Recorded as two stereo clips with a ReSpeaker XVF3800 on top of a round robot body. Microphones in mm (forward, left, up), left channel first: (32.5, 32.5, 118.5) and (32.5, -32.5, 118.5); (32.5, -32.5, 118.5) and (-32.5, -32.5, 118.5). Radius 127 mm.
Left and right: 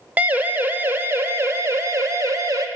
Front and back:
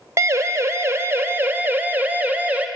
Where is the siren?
150° right, 2 m; by 2.7 s 115° right, 2.5 m.